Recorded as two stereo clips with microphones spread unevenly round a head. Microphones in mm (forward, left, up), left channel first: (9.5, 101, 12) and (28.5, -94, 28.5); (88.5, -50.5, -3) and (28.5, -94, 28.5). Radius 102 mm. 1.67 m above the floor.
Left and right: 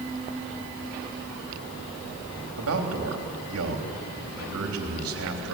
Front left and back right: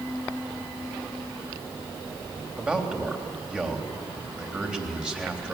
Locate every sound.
2.6 s a man speaking: 70° right, 3.5 m